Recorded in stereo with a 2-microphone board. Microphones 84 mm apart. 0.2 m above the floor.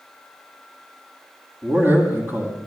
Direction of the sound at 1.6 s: 25° right (ahead or behind).